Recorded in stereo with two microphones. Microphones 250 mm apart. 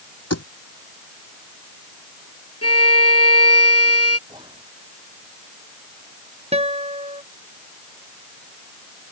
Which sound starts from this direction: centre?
Whispering, at 4.3 s.